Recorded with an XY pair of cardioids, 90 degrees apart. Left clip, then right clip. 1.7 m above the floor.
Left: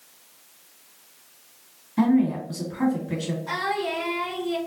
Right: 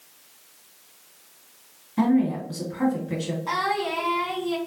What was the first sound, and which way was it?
A woman speaking, 5° left.